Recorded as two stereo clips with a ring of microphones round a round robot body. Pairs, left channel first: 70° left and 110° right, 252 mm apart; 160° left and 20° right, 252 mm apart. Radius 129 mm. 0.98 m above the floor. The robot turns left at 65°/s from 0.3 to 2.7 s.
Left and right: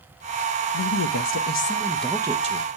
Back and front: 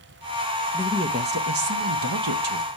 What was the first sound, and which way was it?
A woman speaking, 65° left.